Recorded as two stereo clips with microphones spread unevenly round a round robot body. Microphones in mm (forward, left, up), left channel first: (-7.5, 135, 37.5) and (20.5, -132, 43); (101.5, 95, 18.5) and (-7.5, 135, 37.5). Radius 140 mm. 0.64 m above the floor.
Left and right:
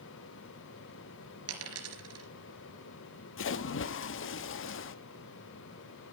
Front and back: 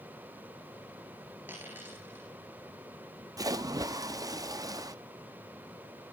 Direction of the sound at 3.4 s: 105° left.